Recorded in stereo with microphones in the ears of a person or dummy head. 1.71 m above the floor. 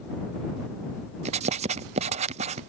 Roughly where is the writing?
Right.